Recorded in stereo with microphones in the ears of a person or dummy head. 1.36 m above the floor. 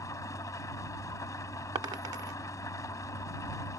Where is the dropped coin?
20° right (ahead or behind).